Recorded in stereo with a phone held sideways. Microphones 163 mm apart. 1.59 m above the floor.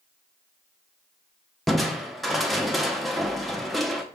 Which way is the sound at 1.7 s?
Centre (ahead or behind).